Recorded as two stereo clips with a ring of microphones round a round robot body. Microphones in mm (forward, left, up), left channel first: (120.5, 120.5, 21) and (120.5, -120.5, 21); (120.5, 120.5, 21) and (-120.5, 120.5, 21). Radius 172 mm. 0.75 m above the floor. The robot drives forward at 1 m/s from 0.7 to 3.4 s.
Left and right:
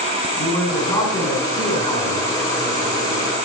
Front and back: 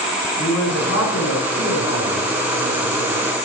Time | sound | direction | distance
0.4 | a man speaking | 10° left | 7.5 m